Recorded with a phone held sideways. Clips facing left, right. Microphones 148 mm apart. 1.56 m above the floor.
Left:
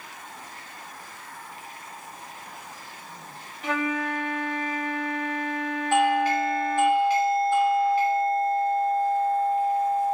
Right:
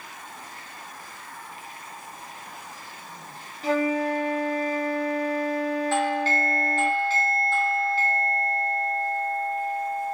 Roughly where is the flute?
Right.